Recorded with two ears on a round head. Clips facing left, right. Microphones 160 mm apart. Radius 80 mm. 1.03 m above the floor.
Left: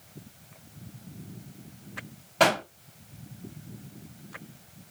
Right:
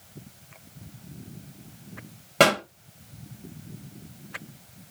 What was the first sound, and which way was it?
A pop, 65° right (ahead or behind).